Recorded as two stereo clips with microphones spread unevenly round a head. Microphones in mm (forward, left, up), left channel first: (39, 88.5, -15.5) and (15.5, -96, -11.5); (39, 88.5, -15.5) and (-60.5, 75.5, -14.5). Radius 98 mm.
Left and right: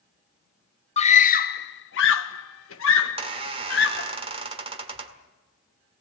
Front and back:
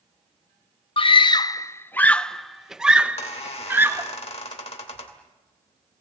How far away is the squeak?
About 1.9 m.